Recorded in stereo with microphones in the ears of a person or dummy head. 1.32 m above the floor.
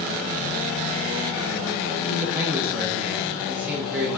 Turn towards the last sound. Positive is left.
turn(degrees=-10)  # may be behind; listen again after turning